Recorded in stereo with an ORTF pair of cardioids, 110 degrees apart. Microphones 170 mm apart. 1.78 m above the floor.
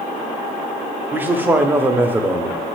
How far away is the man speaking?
About 0.5 m.